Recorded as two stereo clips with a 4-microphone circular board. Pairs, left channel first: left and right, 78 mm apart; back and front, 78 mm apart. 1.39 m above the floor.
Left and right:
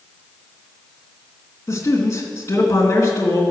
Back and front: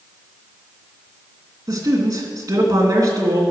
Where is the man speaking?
35° left, 2.5 m.